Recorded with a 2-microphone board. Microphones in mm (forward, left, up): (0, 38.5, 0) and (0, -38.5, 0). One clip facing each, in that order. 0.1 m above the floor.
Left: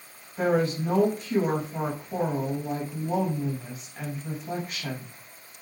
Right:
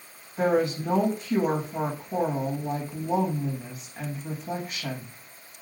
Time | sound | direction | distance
0.4 | a woman speaking | 5° right (ahead or behind) | 4 m